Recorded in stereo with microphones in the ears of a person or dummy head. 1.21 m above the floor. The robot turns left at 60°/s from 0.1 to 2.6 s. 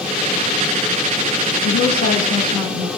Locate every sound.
1.6 s a woman speaking: 85° left, 7.5 m; by 2.9 s 25° left, 7.5 m